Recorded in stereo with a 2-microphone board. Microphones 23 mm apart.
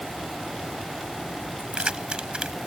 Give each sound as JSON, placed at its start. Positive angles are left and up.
{"t": 1.6, "sound": "keys jangling", "side_deg": -40}